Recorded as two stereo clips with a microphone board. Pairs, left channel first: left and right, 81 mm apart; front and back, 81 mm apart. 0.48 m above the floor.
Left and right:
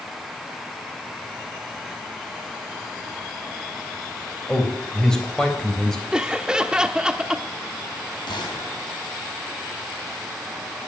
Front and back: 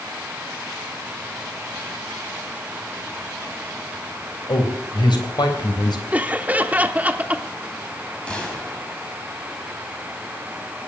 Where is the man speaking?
10° left, 3 m.